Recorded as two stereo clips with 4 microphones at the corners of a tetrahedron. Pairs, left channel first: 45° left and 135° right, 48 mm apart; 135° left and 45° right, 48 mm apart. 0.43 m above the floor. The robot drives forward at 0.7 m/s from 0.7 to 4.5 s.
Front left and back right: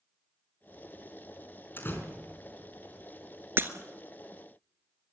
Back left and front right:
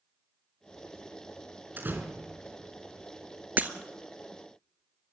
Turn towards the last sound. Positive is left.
turn(degrees=-120)